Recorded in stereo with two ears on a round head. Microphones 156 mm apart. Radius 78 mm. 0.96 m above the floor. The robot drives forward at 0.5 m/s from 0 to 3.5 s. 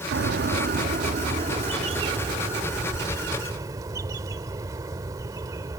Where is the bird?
70° right (ahead or behind); by 5.8 s 20° right (ahead or behind).